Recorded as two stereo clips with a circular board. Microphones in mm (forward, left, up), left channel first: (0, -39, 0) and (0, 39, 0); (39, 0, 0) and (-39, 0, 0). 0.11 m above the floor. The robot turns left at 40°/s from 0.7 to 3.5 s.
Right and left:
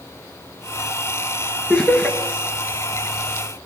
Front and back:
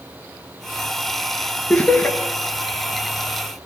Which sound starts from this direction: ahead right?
Laughter, at 1.7 s.